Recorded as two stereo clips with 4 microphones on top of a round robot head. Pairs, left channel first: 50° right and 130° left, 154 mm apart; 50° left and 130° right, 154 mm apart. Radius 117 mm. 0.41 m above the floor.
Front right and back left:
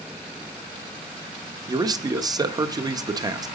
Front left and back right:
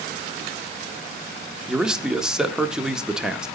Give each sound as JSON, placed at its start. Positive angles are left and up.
{"t": 1.7, "sound": "a man speaking", "azimuth_deg": 150, "distance_m": 0.9}